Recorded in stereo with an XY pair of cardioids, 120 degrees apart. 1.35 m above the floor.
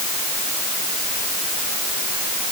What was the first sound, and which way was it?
Only background noise.